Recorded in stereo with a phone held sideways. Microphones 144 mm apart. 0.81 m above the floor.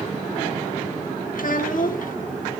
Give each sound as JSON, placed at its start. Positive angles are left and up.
{"t": 1.4, "sound": "a child speaking", "side_deg": 70, "distance_m": 1.1}